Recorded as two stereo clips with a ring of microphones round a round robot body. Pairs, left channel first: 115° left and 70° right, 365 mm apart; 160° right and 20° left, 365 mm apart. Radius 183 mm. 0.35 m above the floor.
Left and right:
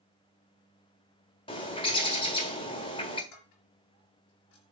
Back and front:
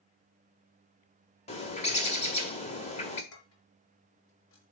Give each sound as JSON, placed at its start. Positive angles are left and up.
{"t": 1.5, "sound": "a bird", "azimuth_deg": 165, "distance_m": 1.5}
{"t": 3.3, "sound": "dishes clattering", "azimuth_deg": 155, "distance_m": 4.0}